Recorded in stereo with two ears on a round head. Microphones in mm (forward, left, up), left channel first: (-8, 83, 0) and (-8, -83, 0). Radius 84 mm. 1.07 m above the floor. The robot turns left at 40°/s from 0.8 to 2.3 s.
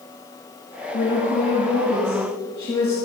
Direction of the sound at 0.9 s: 85° left.